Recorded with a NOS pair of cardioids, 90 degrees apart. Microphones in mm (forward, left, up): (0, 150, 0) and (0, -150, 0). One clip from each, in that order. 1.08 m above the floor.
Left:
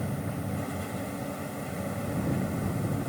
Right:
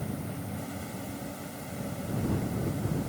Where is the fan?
50° left.